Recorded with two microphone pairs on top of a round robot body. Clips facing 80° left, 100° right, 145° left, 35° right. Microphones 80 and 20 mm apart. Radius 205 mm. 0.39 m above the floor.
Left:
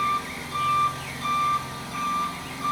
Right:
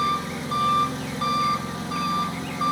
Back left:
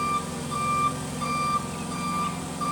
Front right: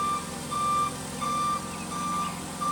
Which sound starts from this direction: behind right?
An engine running, at 0.0 s.